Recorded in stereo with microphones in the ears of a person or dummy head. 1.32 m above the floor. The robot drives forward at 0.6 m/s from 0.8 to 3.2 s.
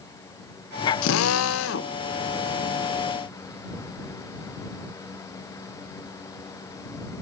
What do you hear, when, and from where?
1.0 s a drill: 75° left (ahead or behind), 0.6 m; by 1.9 s 55° left (ahead or behind), 0.7 m